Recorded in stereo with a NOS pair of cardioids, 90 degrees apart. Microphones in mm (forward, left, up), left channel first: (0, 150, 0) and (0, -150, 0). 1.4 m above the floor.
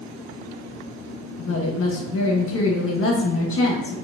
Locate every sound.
1.4 s a woman speaking: 45° left, 1.6 m